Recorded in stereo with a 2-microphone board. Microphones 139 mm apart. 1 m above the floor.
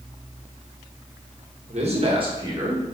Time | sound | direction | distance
1.7 | a man speaking | 55° right (ahead or behind) | 1.2 m